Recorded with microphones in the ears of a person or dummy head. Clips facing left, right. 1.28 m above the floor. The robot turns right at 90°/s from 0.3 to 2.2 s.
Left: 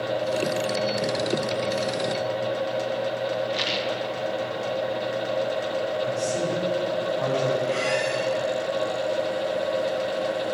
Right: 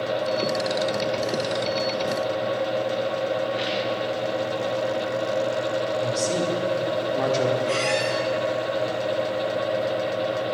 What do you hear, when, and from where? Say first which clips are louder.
3.5 s a rattle: right 2 dB; 60° left (ahead or behind), 1.5 m
6.0 s a man speaking: right 1 dB; 60° right (ahead or behind), 2.5 m
7.7 s a squeak: right 1 dB; 75° right (ahead or behind), 4 m